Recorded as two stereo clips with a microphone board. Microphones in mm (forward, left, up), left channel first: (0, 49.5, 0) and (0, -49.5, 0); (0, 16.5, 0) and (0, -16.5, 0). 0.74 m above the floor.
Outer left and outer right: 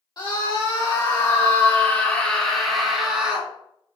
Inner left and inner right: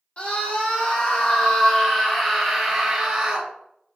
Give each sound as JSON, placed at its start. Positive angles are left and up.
{"t": 0.2, "sound": "a scream", "side_deg": 45, "distance_m": 2.0}